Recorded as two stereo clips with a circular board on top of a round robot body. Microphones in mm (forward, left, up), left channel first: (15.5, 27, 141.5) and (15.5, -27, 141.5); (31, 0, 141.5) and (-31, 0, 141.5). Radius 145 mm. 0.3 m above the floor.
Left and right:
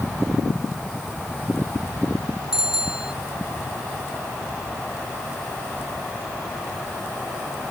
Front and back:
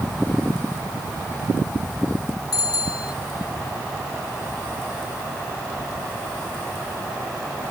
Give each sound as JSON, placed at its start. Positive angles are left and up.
{"t": 2.5, "sound": "a bicycle bell", "azimuth_deg": -10}